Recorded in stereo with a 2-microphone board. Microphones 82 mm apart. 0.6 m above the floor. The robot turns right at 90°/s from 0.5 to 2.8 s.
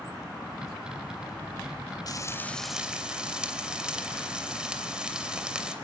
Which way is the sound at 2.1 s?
125° left.